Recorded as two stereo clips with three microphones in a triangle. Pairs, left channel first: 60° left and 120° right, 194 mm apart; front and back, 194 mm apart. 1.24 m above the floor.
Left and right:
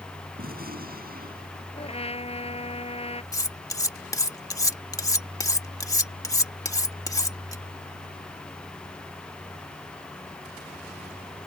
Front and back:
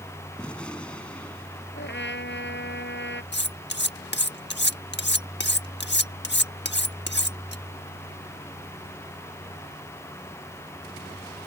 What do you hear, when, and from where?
0.4 s a gunshot: 85° right
1.8 s a trumpet: 5° left
3.3 s cutlery clinking: 10° right